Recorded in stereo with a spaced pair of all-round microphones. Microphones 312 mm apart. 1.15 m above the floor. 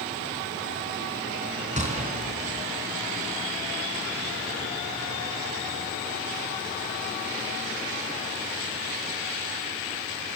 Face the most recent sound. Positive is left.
turn(degrees=-20)  # may be behind; listen again after turning